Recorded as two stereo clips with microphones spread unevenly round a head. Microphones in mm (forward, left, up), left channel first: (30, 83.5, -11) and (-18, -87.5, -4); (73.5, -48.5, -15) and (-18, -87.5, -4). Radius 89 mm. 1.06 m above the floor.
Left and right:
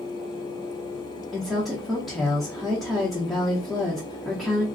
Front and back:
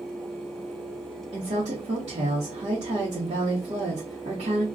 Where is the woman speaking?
165° left, 0.7 m.